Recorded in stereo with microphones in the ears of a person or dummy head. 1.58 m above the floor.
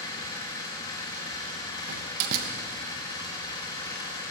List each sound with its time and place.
0.0 s an engine running: 20° left (ahead or behind), 2 m
1.9 s a door slam: 55° right (ahead or behind), 1.1 m